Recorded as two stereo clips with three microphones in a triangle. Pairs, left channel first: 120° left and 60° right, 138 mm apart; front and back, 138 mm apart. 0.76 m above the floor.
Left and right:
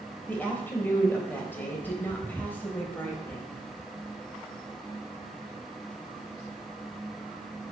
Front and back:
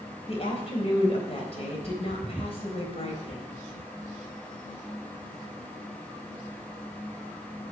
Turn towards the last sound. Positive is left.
turn(degrees=45)